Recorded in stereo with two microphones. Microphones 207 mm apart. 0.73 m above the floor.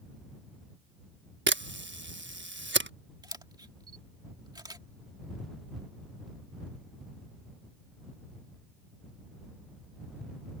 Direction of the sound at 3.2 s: 20° right (ahead or behind).